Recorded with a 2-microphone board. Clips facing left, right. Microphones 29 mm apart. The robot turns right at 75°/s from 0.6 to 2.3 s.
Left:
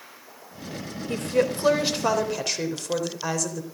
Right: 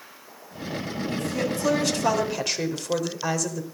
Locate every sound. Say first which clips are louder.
1.1 s a woman speaking: left 5 dB; 90° left, 3 m; by 3.6 s straight behind, 3 m